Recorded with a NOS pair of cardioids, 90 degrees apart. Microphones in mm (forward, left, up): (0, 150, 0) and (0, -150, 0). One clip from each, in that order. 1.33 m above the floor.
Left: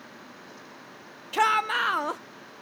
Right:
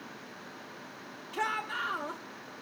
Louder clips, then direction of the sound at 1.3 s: Left 10 dB; 60° left.